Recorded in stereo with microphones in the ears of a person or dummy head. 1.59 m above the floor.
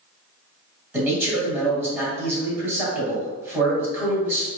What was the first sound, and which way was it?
A man speaking, 15° right (ahead or behind).